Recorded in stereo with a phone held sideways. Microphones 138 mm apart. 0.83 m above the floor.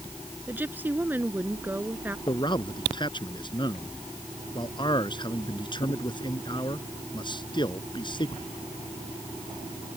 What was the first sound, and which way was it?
A woman speaking, 15° right (ahead or behind).